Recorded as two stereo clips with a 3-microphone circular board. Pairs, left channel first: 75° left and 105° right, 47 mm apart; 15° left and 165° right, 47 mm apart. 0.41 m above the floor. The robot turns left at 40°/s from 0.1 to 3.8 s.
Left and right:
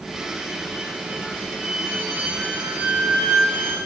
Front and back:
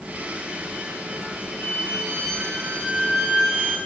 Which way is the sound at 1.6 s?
30° right.